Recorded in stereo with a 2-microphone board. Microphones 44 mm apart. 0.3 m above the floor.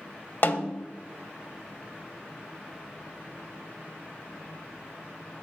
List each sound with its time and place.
0.4 s a snare drum: 45° left (ahead or behind), 0.5 m